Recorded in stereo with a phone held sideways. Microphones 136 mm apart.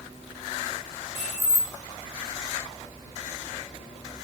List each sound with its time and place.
1.1 s keys jangling: 50° left (ahead or behind), 0.7 m